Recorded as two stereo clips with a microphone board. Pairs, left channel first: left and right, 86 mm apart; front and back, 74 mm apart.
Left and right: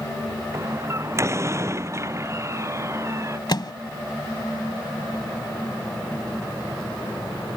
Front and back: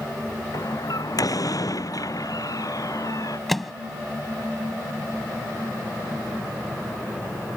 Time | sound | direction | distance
0.5 | a door slam | 35° right | ?
3.5 | a microwave | 90° left | ?